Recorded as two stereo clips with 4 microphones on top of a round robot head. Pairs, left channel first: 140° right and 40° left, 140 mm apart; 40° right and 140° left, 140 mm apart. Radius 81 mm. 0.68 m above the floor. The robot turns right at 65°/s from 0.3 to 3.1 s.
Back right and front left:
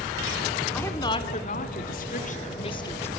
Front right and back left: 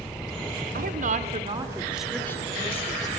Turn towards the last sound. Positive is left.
turn(degrees=-65)